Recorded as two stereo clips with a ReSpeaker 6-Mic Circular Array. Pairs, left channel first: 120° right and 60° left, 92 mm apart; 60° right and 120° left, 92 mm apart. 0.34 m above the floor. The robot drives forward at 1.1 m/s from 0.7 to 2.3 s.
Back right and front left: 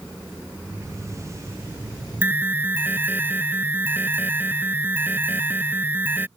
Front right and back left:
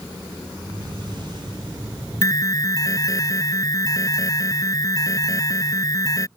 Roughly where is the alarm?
Ahead.